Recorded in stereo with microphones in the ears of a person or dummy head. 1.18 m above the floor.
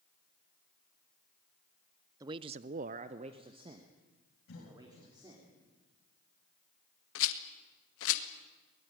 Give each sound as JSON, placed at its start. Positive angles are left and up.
{"t": 2.2, "sound": "a man speaking", "side_deg": -25, "distance_m": 0.9}
{"t": 4.5, "sound": "a cough", "side_deg": 70, "distance_m": 5.5}
{"t": 7.2, "sound": "a rattle", "side_deg": 70, "distance_m": 1.8}